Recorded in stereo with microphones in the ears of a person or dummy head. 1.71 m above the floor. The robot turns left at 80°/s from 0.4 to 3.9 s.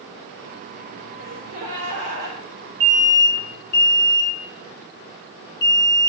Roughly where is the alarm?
Right.